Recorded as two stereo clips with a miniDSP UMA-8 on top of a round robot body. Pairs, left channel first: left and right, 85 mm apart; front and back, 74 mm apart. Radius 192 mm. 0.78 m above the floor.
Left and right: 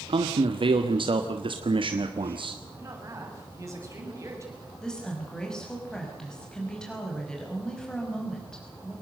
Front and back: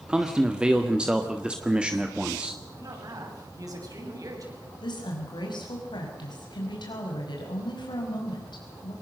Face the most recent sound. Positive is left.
turn(degrees=10)